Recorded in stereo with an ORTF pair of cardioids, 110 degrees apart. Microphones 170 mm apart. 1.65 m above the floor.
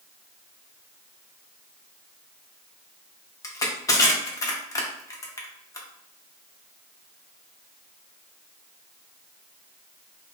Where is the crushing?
20° left, 0.6 m.